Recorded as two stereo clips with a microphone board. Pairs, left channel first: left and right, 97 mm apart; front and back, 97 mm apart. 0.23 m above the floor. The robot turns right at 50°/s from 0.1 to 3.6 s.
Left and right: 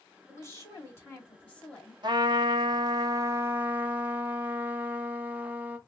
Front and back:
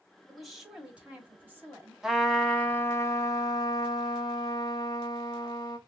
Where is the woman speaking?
85° left, 1.2 m; by 1.9 s 165° left, 1.2 m.